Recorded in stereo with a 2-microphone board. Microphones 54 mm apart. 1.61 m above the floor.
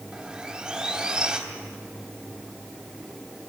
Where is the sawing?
15° right (ahead or behind), 3 m.